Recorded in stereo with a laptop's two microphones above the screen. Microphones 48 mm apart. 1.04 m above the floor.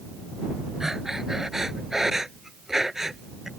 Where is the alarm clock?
No alarm clock in this recording.